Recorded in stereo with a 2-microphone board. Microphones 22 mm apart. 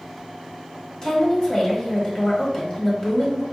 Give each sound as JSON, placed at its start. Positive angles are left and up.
{"t": 1.0, "sound": "a woman speaking", "side_deg": 25, "distance_m": 1.1}